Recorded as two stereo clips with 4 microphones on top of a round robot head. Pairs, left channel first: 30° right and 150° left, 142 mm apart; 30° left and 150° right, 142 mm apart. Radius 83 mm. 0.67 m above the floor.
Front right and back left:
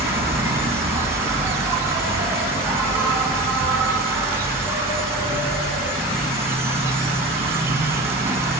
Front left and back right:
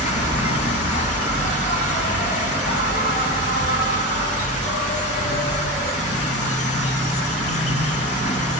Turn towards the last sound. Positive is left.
turn(degrees=75)